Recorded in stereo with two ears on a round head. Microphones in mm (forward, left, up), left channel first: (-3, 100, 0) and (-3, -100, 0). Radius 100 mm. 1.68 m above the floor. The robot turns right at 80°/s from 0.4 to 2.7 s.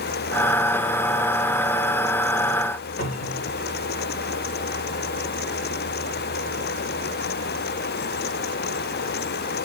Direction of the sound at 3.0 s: 40° left (ahead or behind).